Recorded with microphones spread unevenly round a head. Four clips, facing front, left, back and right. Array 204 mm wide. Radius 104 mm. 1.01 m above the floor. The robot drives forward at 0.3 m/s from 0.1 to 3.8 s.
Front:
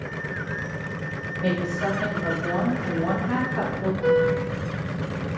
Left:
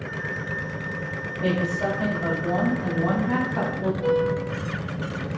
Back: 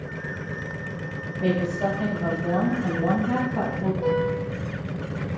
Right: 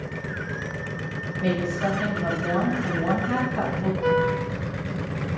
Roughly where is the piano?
Behind.